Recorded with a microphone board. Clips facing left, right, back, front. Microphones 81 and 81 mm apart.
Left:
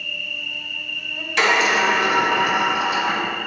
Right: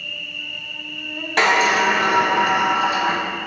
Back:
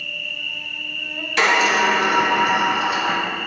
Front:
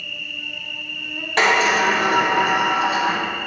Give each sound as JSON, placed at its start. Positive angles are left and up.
{"t": 0.0, "sound": "an insect", "azimuth_deg": -70, "distance_m": 1.8}
{"t": 1.4, "sound": "a sliding door", "azimuth_deg": -45, "distance_m": 2.5}